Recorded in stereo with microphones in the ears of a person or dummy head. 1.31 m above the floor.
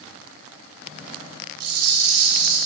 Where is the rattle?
55° right (ahead or behind), 3 m.